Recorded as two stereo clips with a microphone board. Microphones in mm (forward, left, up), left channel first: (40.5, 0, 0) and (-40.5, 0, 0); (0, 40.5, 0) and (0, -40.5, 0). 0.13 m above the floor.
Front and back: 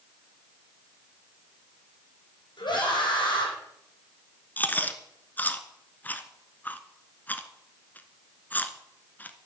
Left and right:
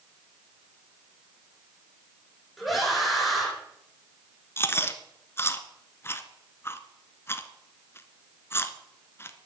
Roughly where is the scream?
Ahead.